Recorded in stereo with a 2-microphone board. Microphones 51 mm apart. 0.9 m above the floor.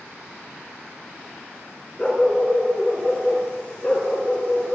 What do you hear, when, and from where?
2.0 s a dog barking: 15° left (ahead or behind), 4 m; by 4.8 s 35° left (ahead or behind), 5.5 m